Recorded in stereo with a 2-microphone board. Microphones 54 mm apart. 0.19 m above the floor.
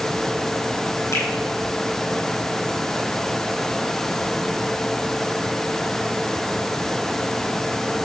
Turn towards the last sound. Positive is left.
turn(degrees=75)  # may be behind; listen again after turning